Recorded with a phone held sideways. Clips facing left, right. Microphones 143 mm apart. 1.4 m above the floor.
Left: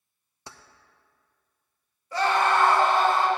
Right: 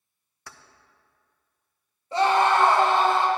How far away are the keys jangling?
About 0.6 m.